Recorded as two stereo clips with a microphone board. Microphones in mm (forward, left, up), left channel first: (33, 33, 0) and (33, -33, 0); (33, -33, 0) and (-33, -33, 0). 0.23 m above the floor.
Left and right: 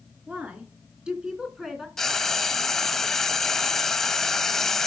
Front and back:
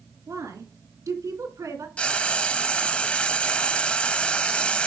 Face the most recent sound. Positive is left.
turn(degrees=15)